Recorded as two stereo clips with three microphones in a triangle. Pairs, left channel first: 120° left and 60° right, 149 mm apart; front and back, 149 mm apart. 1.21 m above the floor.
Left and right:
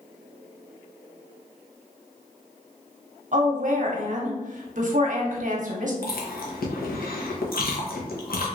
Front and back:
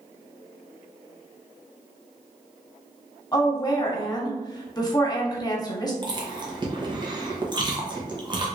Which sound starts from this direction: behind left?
Chewing, at 6.0 s.